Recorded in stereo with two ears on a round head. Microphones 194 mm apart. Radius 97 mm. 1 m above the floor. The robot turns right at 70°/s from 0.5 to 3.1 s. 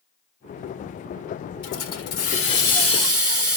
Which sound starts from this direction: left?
A hiss, at 1.6 s.